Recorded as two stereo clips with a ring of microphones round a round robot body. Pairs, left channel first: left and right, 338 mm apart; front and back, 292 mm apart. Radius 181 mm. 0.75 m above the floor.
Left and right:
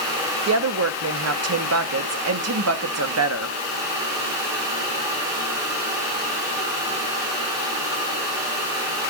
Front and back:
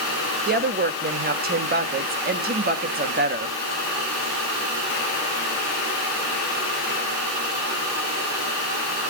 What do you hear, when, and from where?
0.5 s a woman speaking: 125° right, 1.2 m